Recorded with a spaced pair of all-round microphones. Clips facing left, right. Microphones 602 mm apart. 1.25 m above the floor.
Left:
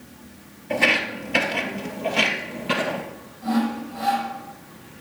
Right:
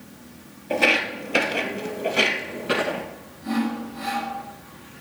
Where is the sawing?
90° left, 5.5 m.